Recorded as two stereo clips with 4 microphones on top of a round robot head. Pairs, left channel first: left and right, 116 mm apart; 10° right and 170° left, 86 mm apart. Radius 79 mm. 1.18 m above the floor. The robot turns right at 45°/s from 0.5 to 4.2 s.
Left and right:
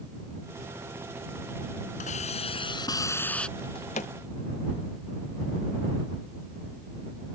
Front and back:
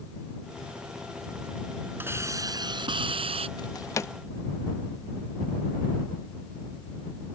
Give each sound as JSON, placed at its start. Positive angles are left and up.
{"t": 2.0, "sound": "a hiss", "azimuth_deg": 105}
{"t": 3.6, "sound": "a drawer", "azimuth_deg": 30}